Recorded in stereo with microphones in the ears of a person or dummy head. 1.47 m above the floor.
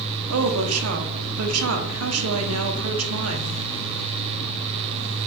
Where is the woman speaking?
80° right, 1.1 m.